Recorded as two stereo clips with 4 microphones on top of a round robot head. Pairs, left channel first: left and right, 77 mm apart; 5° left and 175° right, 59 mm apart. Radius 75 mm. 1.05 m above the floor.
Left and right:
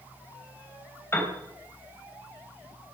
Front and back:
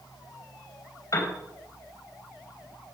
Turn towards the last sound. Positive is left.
turn(degrees=30)